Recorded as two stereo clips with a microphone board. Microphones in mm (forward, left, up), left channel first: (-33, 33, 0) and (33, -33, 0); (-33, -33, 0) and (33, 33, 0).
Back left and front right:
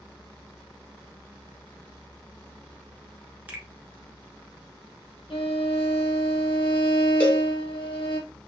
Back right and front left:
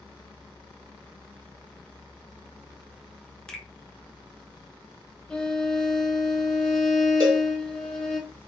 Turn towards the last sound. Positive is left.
turn(degrees=65)